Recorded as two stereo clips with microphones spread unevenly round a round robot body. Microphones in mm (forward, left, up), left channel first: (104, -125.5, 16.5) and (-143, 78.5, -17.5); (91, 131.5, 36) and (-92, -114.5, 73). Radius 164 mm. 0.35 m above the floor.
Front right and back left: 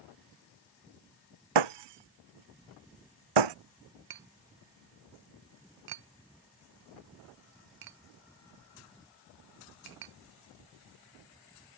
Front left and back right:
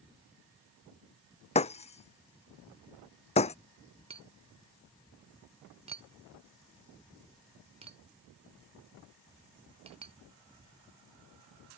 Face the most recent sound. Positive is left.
turn(degrees=160)